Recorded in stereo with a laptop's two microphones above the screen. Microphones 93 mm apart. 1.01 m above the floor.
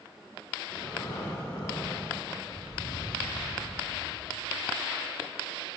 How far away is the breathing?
About 1.1 m.